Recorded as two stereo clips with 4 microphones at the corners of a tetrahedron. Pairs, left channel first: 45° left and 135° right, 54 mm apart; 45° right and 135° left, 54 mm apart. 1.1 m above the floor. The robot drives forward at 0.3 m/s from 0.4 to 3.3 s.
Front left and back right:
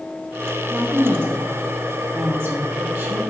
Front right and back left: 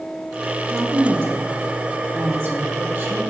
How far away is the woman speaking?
About 1.6 m.